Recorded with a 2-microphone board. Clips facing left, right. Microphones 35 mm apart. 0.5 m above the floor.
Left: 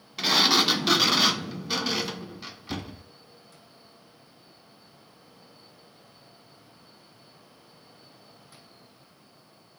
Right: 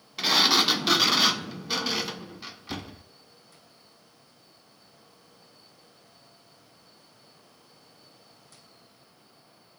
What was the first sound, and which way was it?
A sliding door, 5° right (ahead or behind).